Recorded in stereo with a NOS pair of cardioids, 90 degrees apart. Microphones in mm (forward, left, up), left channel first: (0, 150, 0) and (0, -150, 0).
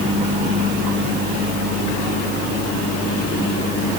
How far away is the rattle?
I don't hear a rattle.